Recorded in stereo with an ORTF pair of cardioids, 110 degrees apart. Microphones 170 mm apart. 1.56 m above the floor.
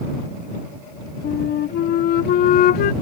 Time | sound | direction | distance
1.2 | a flute | 65° left | ?